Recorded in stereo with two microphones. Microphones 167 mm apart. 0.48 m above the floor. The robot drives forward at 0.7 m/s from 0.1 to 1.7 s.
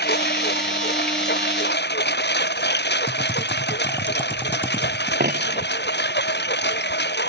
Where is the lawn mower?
75° left (ahead or behind); by 7.3 s 90° left.